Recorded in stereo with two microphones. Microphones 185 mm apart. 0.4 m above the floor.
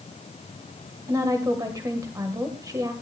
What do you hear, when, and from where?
1.1 s a woman speaking: 20° right (ahead or behind), 1.7 m